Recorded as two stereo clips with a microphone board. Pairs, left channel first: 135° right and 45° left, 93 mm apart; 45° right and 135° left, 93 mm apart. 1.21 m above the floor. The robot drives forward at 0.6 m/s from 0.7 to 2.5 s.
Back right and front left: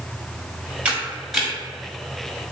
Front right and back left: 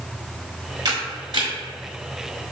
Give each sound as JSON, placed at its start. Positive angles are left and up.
{"t": 0.8, "sound": "a camera shutter", "azimuth_deg": 115, "distance_m": 1.5}